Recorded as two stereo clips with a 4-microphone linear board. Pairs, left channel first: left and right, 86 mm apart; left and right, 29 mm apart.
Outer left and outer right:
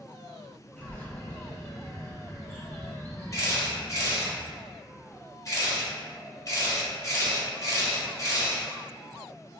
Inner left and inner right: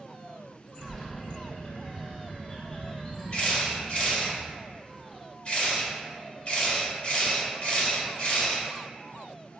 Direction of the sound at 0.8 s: 20° left (ahead or behind).